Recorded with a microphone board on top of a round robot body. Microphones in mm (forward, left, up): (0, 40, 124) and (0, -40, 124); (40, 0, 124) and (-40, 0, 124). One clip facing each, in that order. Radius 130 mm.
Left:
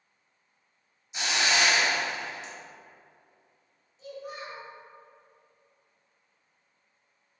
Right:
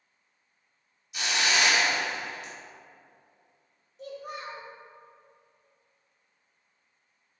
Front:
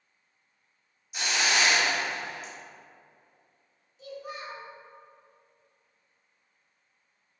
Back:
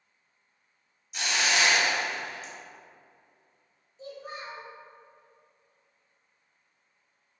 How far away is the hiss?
About 1.4 m.